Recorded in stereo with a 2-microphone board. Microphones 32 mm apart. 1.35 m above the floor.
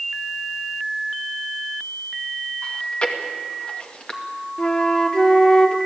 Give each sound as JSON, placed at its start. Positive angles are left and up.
{"t": 2.6, "sound": "chewing", "side_deg": 35, "distance_m": 2.0}
{"t": 4.6, "sound": "a flute", "side_deg": 25, "distance_m": 1.4}